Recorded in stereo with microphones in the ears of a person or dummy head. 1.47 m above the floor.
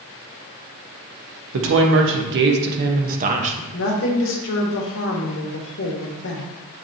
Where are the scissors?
I don't hear scissors.